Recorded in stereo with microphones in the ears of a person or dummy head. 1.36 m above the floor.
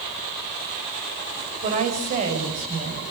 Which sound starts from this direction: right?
A woman speaking, at 1.6 s.